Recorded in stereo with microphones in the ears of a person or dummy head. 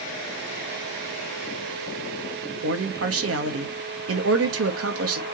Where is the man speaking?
75° right (ahead or behind), 1.4 m.